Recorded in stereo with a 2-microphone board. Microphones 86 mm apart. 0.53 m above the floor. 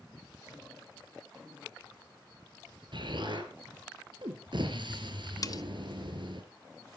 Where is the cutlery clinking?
45° left (ahead or behind), 0.5 m.